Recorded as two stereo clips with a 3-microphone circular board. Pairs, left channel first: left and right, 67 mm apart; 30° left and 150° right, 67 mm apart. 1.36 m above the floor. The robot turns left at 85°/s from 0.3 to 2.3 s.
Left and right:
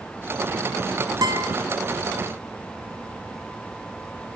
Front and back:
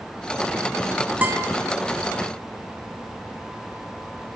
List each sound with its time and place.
1.2 s a guitar: 85° right, 1.0 m; by 1.6 s 115° right, 1.0 m